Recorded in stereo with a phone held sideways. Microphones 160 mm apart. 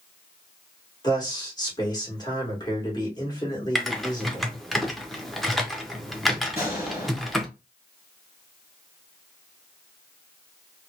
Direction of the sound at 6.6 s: 15° right (ahead or behind).